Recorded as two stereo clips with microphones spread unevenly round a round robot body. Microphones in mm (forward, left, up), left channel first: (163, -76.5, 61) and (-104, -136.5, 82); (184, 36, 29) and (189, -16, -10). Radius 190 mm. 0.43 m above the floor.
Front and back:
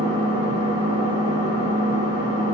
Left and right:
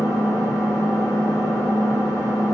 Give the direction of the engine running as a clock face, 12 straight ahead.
8 o'clock.